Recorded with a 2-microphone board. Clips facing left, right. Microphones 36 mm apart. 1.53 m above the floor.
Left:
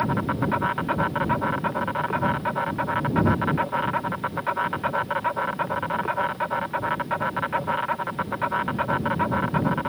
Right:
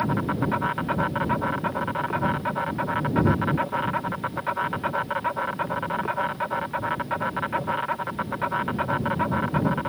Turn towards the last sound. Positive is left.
turn(degrees=5)  # may be behind; listen again after turning